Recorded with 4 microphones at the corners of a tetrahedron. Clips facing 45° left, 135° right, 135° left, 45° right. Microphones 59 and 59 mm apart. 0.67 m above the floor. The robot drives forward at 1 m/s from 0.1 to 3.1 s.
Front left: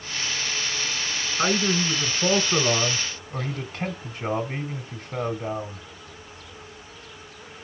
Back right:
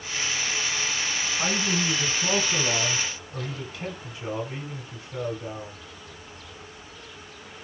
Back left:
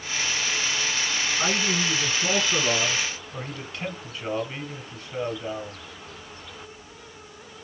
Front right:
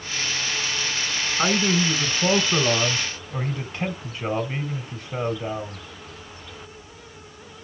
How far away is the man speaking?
About 4.5 m.